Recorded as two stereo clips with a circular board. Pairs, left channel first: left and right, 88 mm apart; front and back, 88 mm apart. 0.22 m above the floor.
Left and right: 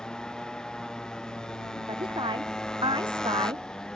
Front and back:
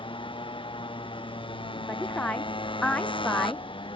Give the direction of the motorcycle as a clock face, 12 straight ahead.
12 o'clock.